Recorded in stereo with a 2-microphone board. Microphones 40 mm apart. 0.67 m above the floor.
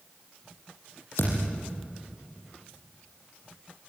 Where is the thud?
75° left (ahead or behind), 6.5 m.